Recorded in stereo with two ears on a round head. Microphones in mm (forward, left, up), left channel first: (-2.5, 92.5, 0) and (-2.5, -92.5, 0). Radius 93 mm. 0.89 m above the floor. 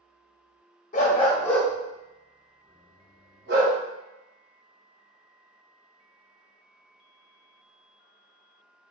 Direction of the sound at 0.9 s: 40° left (ahead or behind).